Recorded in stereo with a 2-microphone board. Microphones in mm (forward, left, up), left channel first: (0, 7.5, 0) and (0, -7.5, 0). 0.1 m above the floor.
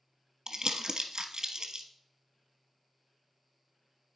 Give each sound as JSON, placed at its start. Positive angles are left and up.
{"t": 0.5, "sound": "crumpling", "side_deg": -50, "distance_m": 1.0}